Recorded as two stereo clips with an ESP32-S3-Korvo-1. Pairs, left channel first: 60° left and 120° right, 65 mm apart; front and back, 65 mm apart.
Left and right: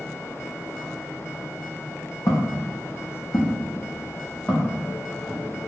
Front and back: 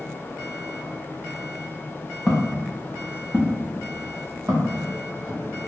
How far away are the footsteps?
About 1.4 m.